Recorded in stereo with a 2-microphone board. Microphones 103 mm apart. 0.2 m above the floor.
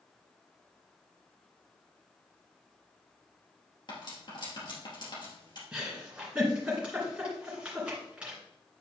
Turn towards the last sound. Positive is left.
turn(degrees=-10)  # may be behind; listen again after turning